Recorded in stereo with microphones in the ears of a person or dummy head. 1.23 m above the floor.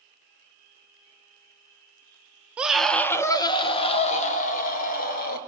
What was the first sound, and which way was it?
A scream, 5° right (ahead or behind).